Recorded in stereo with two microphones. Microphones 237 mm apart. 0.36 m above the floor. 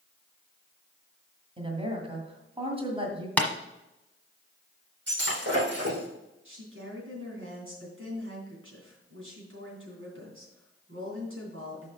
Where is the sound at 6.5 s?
60° right (ahead or behind), 3 m.